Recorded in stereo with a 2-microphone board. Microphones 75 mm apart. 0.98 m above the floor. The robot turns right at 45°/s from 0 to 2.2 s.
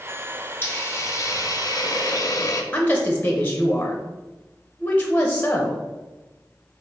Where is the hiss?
40° left, 0.6 m; by 2.6 s 115° left, 0.6 m.